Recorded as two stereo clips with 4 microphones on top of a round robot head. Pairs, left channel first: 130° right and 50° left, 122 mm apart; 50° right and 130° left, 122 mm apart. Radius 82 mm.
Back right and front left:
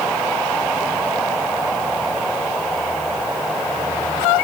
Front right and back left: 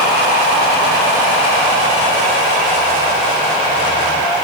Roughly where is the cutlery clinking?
I don't hear cutlery clinking.